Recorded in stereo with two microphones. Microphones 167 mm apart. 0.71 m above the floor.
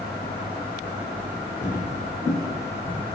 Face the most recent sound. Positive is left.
turn(degrees=30)  # may be behind; listen again after turning